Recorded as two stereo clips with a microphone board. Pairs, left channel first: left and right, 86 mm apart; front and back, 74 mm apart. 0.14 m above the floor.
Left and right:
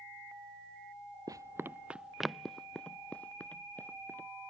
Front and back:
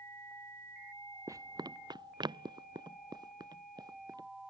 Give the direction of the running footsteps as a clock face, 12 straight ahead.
4 o'clock.